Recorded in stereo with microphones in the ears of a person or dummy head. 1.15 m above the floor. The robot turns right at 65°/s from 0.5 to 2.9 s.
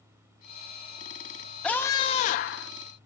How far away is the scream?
About 0.5 m.